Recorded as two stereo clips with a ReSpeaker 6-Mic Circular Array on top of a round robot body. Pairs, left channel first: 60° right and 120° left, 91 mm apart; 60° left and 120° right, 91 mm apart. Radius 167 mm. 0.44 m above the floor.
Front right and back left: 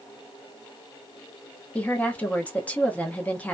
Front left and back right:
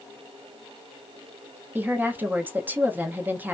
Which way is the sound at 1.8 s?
100° right.